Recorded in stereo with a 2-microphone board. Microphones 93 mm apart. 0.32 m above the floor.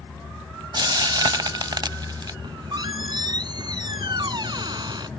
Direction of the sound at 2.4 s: 55° right (ahead or behind).